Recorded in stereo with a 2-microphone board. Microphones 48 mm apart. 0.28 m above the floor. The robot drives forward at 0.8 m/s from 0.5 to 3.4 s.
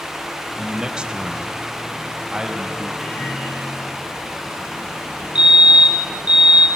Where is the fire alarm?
25° right (ahead or behind), 3 m.